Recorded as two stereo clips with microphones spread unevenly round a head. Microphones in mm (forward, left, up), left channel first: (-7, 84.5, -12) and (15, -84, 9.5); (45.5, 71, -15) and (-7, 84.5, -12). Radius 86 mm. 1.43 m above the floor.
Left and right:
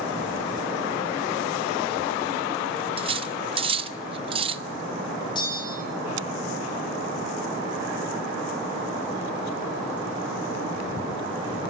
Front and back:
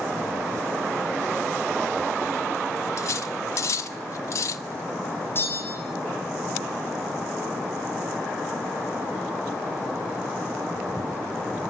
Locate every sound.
3.0 s cutlery clinking: 35° right, 1.0 m
5.3 s a bell: 35° left, 5 m